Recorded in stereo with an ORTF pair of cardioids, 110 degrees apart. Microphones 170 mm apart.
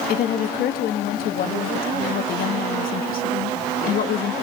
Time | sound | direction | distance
0.1 | a woman speaking | 65° left | 2 m